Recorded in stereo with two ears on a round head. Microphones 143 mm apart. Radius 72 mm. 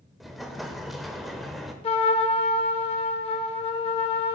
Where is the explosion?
Centre (ahead or behind), 0.6 m.